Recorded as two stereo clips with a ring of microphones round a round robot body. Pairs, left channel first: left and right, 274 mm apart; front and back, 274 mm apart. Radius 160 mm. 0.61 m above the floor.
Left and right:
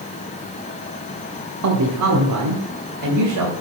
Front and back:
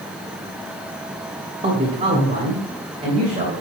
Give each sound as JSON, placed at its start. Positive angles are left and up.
{"t": 1.6, "sound": "a man speaking", "azimuth_deg": -110, "distance_m": 1.4}